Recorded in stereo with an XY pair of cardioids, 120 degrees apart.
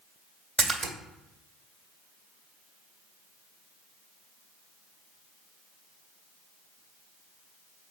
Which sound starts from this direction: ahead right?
A splash, at 0.6 s.